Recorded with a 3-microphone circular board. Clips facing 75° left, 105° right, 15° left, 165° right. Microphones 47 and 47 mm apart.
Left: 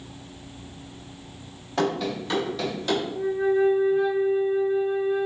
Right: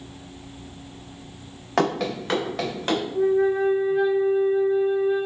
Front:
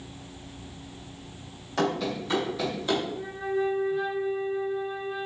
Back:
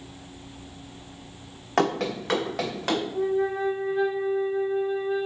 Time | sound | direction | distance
1.8 | running footsteps | 125° right | 0.9 m
3.1 | a flute | 110° right | 1.7 m